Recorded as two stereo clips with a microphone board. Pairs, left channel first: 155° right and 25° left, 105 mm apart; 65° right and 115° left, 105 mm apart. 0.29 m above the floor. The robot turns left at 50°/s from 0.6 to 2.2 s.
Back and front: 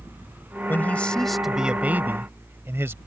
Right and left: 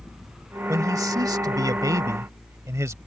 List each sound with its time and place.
0.7 s a man speaking: 145° left; by 3.0 s 70° left